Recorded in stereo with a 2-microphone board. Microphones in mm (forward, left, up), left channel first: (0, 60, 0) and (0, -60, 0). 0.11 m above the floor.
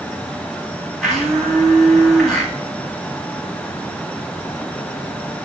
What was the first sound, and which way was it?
A blender, 5° left (ahead or behind).